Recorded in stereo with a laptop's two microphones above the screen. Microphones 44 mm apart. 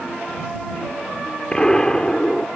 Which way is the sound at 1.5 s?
20° left (ahead or behind).